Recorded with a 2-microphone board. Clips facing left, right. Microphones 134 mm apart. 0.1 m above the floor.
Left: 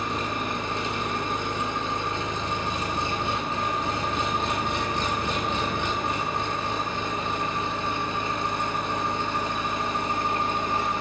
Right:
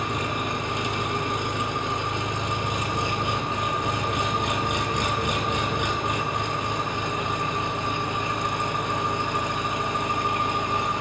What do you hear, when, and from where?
0.0 s an engine running: 20° right (ahead or behind), 0.7 m